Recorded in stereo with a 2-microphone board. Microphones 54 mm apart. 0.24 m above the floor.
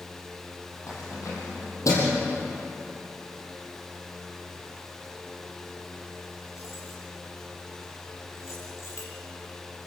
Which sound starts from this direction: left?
Keys jangling, at 0.9 s.